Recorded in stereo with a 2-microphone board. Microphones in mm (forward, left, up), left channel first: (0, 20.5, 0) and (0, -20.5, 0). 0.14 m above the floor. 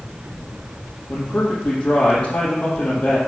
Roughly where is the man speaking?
Left.